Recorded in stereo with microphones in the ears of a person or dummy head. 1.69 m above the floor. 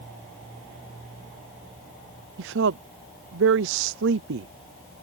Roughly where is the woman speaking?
Right.